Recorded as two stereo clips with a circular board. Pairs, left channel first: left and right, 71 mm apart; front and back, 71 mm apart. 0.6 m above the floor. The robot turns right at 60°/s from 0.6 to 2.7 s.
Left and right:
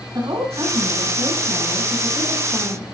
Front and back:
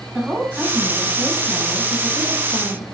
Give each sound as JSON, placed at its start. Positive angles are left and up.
{"t": 0.1, "sound": "a woman speaking", "azimuth_deg": -100, "distance_m": 8.0}